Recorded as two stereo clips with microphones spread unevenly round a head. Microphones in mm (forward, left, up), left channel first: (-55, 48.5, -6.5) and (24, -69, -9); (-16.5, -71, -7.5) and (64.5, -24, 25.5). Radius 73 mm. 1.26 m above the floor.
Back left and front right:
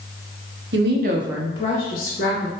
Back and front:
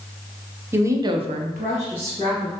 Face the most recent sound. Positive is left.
turn(degrees=100)